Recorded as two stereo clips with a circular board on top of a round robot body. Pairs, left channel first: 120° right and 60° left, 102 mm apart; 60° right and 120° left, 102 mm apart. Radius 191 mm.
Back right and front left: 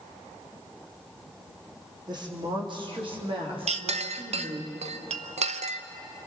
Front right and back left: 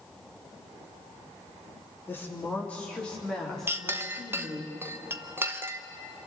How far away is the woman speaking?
About 2 m.